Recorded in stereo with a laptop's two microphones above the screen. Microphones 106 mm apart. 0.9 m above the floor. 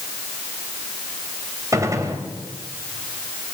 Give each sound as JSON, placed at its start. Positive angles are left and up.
{"t": 1.7, "sound": "a gunshot", "side_deg": -30, "distance_m": 3.5}